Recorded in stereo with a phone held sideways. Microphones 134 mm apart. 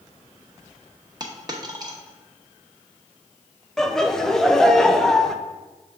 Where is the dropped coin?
30° right (ahead or behind), 0.9 m.